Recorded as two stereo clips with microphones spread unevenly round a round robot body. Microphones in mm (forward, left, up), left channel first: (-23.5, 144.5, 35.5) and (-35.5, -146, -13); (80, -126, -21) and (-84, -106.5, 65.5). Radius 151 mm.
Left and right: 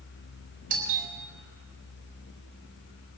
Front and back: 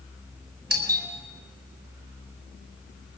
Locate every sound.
0.7 s a doorbell: 150° right, 3 m